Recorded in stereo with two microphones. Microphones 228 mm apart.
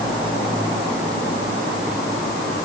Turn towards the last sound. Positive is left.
No sound to turn to.